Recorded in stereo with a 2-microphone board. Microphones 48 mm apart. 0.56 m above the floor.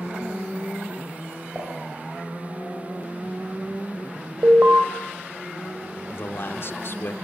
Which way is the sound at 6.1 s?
55° left (ahead or behind).